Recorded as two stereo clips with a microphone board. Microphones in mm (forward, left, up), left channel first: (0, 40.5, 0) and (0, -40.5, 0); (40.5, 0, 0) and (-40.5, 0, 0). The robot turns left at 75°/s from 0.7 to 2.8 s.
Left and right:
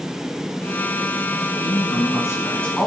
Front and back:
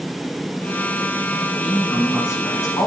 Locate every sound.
1.6 s a woman speaking: 95° left, 2 m; by 2.9 s 5° left, 2 m